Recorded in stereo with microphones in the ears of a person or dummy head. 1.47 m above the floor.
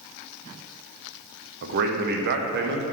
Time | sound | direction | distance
1.6 | a man speaking | 60° right (ahead or behind) | 0.8 m